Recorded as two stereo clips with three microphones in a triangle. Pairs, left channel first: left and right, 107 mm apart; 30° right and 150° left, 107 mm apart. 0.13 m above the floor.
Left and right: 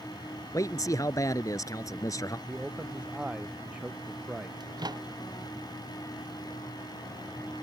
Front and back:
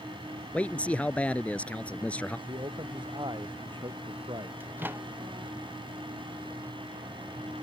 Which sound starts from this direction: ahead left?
A man speaking, at 0.5 s.